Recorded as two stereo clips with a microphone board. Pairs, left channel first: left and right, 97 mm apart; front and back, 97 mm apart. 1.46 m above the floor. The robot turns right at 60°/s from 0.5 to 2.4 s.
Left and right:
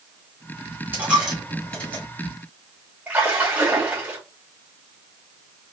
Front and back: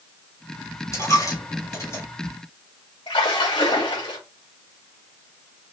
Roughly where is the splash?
Ahead.